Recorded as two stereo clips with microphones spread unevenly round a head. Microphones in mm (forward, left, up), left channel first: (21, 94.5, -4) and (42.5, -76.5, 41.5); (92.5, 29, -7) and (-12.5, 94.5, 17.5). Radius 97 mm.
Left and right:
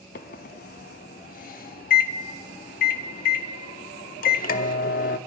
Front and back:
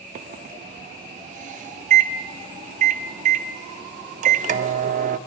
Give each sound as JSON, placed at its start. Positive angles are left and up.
{"t": 0.1, "sound": "a microwave", "azimuth_deg": 150, "distance_m": 0.5}